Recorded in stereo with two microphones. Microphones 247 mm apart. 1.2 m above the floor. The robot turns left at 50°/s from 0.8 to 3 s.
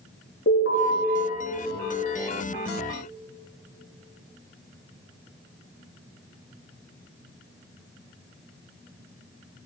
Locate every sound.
0.5 s an alarm: 60° left (ahead or behind), 4 m